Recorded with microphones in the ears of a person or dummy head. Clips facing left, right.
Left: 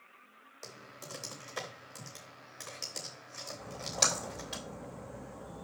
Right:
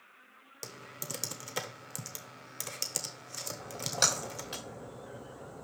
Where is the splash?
5° right (ahead or behind), 3 m.